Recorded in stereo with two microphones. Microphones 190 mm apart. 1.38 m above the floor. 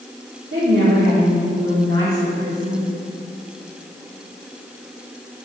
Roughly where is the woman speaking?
Right.